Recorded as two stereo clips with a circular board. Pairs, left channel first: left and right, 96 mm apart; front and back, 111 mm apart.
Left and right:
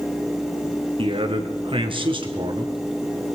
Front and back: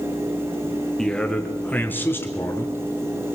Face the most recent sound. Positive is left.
turn(degrees=-65)